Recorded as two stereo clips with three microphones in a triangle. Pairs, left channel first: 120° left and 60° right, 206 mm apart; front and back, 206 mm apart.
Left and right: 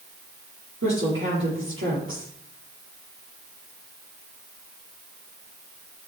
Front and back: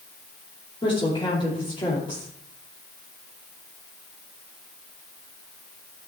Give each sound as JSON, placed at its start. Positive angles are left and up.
{"t": 0.8, "sound": "a woman speaking", "azimuth_deg": -65, "distance_m": 6.0}